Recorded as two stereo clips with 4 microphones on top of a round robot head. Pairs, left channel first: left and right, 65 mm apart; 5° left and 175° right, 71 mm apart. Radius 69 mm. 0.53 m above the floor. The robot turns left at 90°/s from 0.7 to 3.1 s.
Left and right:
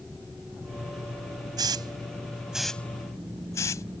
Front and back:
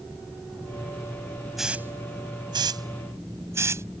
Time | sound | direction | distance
1.6 | a hiss | 85° right | ?